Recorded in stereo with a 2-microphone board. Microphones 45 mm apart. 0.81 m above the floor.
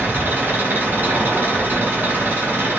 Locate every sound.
0.0 s an engine running: 45° right (ahead or behind), 1.3 m